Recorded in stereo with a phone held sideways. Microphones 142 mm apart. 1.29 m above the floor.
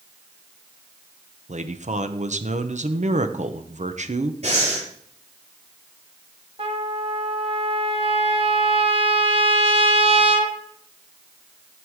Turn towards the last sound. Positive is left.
turn(degrees=-45)  # may be behind; listen again after turning